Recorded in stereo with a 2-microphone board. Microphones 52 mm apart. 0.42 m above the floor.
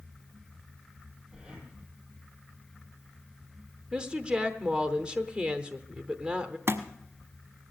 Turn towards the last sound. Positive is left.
turn(degrees=-60)  # may be behind; listen again after turning